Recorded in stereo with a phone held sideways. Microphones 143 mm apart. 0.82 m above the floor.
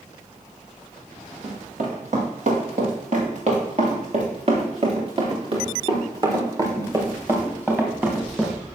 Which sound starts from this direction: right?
Running footsteps, at 1.4 s.